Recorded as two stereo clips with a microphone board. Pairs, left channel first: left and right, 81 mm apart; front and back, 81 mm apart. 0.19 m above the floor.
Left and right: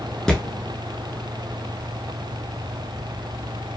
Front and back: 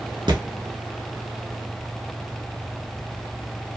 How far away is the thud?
About 0.9 m.